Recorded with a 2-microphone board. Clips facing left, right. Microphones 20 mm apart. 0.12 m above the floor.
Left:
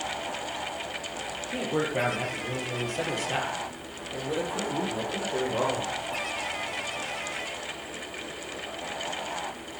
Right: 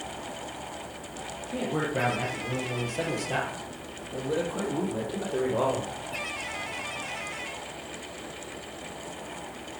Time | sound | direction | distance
1.5 | a man speaking | 25° left (ahead or behind) | 3.5 m